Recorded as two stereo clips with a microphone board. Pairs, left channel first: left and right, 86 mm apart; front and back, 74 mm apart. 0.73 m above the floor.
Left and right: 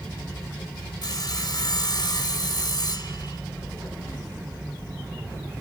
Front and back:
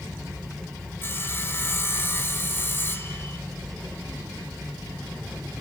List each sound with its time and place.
1.0 s sawing: 60° left, 2.5 m